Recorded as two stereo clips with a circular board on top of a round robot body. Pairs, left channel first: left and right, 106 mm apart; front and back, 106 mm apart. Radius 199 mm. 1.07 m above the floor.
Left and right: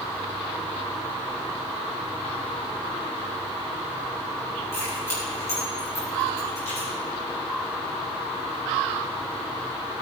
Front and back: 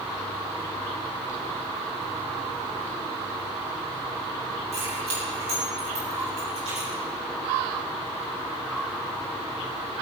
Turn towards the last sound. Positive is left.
turn(degrees=155)